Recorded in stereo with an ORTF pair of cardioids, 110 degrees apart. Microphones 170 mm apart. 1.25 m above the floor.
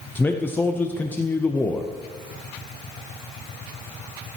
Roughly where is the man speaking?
Ahead.